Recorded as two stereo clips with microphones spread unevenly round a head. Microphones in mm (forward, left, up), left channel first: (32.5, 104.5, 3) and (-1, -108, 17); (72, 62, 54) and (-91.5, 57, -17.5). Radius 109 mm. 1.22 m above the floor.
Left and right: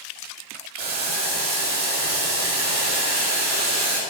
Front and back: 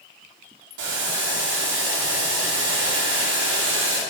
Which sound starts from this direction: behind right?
Boiling, at 0.8 s.